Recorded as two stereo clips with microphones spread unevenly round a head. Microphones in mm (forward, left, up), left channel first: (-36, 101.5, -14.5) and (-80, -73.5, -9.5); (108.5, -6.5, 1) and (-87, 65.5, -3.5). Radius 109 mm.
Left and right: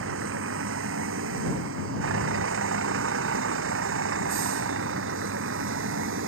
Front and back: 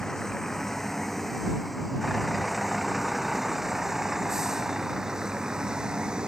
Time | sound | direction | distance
0.0 | a vehicle | 110° right | ?